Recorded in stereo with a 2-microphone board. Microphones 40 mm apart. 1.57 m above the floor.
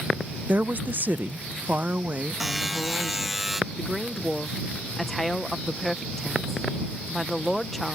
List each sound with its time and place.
0.5 s a woman speaking: 40° right (ahead or behind); by 3.4 s 35° right (ahead or behind)
2.4 s a buzzer: 5° right (ahead or behind)
3.8 s a woman speaking: 5° left (ahead or behind)